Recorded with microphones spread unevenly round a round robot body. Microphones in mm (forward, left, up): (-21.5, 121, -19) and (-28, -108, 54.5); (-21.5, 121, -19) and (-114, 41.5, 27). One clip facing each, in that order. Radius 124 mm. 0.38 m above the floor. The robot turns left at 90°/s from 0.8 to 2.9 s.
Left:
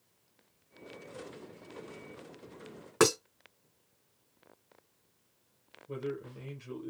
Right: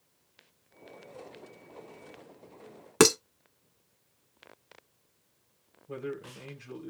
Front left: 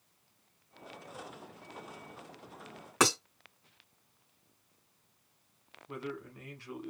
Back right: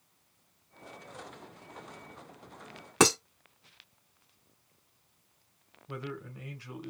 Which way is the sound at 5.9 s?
120° left.